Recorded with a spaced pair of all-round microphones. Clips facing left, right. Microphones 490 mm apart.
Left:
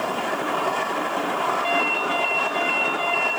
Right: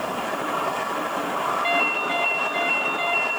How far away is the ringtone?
About 2 m.